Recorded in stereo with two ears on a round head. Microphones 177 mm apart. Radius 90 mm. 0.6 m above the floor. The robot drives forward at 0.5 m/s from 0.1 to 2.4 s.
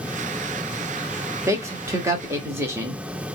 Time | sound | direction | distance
1.5 | a man speaking | 15° right (ahead or behind) | 0.7 m